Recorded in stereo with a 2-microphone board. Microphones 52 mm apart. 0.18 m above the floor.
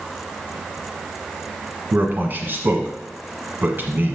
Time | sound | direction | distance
1.9 | a man speaking | 40° right (ahead or behind) | 1.4 m